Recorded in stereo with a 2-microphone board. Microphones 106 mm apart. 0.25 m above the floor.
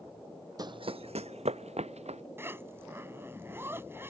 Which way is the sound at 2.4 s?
20° right (ahead or behind).